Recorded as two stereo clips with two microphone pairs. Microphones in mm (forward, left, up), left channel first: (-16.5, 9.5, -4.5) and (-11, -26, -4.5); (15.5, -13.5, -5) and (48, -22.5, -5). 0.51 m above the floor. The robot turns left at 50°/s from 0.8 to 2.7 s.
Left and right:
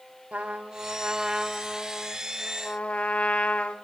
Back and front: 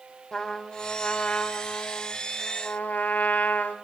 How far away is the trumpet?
About 1.3 m.